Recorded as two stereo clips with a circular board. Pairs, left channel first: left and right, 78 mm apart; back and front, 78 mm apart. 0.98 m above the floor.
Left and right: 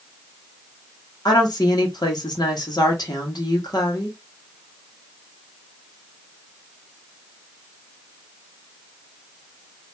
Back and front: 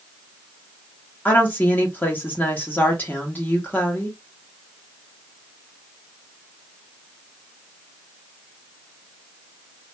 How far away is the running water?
No running water in this recording.